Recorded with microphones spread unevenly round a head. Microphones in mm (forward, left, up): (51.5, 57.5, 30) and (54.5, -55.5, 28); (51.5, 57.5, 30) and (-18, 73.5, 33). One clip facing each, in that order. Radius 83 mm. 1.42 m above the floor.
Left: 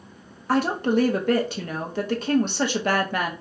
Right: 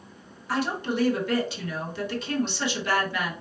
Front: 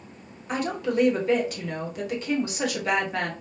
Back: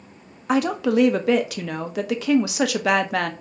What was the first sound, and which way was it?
A woman speaking, 150° left.